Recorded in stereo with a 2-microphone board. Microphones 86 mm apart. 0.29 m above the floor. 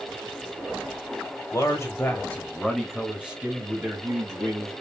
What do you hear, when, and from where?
1.5 s a man speaking: 40° left (ahead or behind), 1.3 m; by 4.7 s 35° right (ahead or behind), 1.9 m